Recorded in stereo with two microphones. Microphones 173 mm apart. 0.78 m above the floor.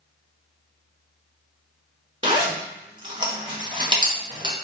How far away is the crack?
No crack in this recording.